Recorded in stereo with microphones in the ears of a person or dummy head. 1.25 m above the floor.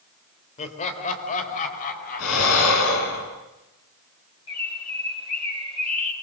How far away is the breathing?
About 6 m.